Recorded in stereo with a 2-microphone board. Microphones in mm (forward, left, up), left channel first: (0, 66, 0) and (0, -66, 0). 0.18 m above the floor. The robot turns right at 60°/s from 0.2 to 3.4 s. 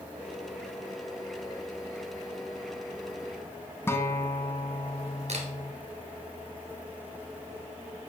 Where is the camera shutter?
55° right (ahead or behind), 1.7 m.